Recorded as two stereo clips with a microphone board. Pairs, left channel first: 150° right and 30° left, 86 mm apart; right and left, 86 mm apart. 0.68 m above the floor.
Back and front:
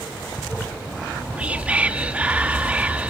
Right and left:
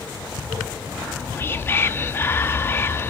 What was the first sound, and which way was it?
Whispering, 40° right.